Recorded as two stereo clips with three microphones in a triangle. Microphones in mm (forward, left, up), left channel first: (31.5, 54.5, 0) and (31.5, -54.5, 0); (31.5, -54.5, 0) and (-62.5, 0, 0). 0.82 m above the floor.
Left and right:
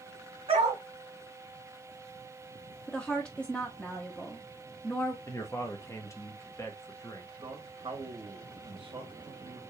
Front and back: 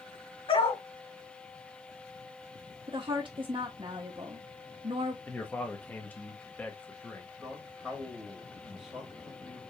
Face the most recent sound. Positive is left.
turn(degrees=-125)